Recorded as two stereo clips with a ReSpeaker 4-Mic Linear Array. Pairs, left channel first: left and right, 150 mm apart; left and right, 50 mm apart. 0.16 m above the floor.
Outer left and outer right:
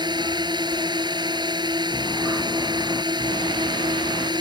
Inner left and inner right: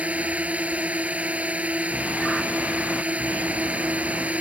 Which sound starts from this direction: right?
A drone, at 0.0 s.